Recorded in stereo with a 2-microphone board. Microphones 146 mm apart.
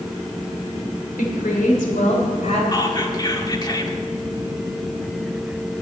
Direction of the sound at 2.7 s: 30° left (ahead or behind).